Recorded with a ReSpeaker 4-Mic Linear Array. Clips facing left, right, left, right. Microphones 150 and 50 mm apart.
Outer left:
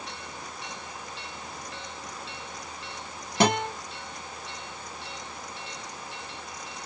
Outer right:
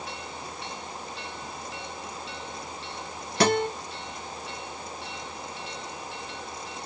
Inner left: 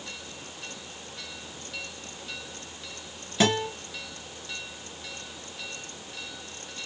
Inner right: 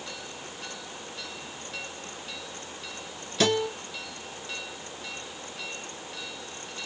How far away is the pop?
I don't hear a pop.